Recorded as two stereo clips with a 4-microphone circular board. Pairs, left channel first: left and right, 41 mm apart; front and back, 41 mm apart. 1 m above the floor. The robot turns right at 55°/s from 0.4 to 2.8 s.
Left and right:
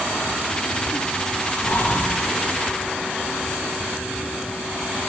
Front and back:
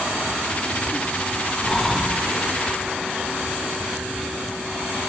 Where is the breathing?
80° left, 1.6 m; by 2.3 s 115° left, 1.6 m.